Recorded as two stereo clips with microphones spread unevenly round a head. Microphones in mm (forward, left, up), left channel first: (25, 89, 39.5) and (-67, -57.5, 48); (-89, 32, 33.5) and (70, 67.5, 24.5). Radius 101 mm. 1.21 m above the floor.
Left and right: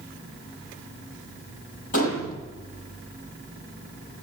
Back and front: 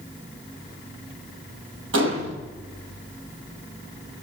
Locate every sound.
1.9 s a gunshot: 10° left, 10 m